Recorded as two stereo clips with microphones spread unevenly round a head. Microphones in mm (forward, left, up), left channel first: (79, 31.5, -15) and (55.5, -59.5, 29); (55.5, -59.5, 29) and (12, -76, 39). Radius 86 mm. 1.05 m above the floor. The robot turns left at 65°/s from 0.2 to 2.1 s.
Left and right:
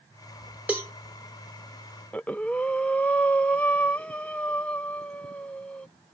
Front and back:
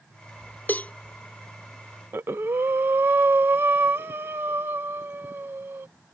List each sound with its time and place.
0.7 s a cowbell: 30° right; by 0.9 s 45° right
2.1 s breathing: 145° left